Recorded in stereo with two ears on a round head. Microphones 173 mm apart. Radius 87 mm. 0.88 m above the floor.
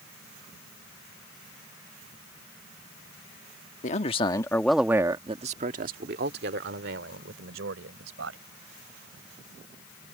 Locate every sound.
3.8 s a man speaking: 40° left (ahead or behind); by 8.4 s 70° right (ahead or behind)